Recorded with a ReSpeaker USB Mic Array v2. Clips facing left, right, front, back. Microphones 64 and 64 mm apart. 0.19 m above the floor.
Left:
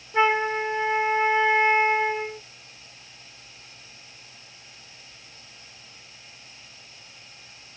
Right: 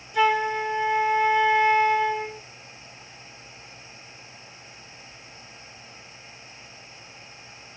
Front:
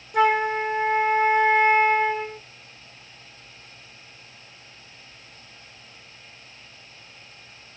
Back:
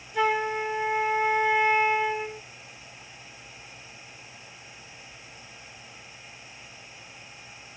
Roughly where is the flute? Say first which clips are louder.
Even, front 5 dB; ahead left.